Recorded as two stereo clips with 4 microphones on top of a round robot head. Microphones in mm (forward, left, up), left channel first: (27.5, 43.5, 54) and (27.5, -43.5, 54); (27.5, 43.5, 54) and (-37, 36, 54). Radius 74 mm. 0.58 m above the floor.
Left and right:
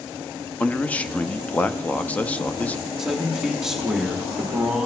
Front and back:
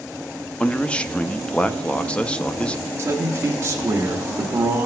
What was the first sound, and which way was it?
A man speaking, 45° left.